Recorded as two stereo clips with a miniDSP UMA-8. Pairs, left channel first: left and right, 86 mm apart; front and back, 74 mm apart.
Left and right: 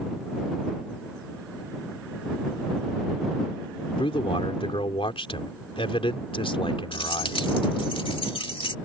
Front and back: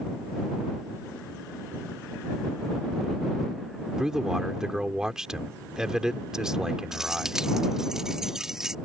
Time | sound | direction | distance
4.0 | a man speaking | 100° left | ?
6.9 | keys jangling | 95° left | ?